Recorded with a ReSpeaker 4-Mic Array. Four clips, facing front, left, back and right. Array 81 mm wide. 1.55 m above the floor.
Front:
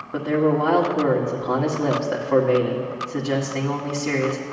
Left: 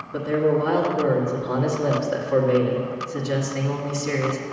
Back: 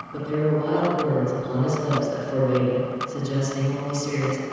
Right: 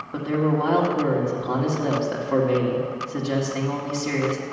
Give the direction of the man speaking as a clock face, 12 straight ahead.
1 o'clock.